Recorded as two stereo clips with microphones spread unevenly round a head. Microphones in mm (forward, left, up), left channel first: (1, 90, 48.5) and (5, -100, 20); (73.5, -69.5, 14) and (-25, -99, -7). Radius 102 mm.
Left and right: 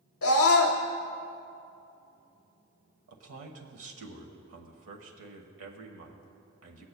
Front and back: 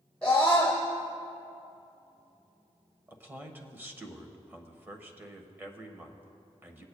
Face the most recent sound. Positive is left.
turn(degrees=-95)